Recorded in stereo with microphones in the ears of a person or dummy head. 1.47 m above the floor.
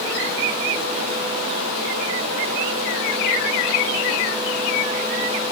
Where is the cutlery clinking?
I don't hear cutlery clinking.